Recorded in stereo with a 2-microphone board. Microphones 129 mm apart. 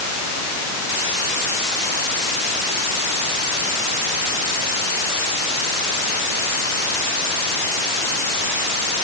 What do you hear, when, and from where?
Only background noise.